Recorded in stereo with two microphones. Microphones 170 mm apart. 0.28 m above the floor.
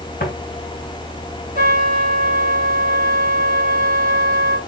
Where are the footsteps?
70° left (ahead or behind), 1.7 m.